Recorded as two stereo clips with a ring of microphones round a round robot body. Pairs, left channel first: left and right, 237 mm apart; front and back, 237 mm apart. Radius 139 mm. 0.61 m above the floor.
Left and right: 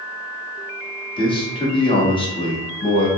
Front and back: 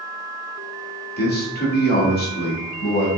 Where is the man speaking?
25° left, 1.5 m.